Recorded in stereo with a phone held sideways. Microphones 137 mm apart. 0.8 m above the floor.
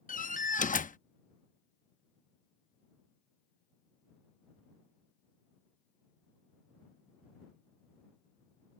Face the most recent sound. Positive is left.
turn(degrees=70)  # may be behind; listen again after turning